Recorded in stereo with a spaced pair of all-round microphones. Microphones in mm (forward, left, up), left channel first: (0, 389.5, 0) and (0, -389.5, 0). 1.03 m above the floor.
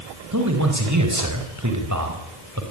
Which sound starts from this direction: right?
A man speaking, at 0.3 s.